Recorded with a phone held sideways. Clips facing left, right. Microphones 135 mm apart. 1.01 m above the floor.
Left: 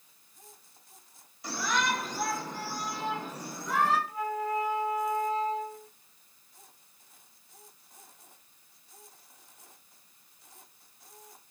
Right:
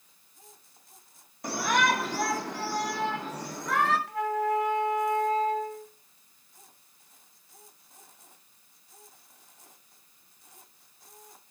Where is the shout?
55° right (ahead or behind), 2 m; by 4.0 s 75° right (ahead or behind), 4.5 m.